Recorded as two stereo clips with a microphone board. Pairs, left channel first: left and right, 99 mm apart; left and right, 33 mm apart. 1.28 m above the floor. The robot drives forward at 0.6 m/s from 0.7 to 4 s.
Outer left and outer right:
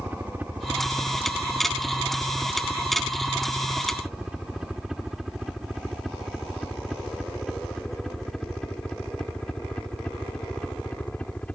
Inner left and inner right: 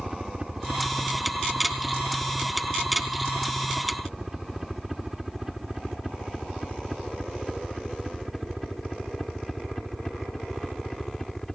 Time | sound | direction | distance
0.0 | a helicopter | 20° right (ahead or behind) | ?